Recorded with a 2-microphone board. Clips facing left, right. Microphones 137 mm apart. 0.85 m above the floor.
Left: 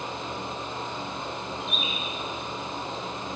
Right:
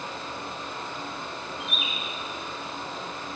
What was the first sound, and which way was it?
A bird, 10° right (ahead or behind).